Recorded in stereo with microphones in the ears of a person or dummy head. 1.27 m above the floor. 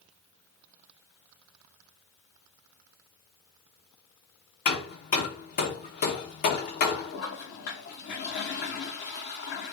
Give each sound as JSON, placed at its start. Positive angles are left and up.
{"t": 4.7, "sound": "hammering", "side_deg": 45, "distance_m": 0.8}
{"t": 7.1, "sound": "a toilet flushing", "side_deg": 50, "distance_m": 0.8}